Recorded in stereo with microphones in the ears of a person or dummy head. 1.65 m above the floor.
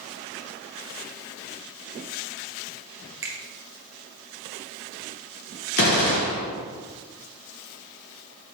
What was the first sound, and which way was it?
A finger snap, 15° right (ahead or behind).